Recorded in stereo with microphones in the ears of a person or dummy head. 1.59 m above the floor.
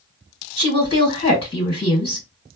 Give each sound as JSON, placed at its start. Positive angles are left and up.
{"t": 0.6, "sound": "a woman speaking", "side_deg": 25, "distance_m": 1.6}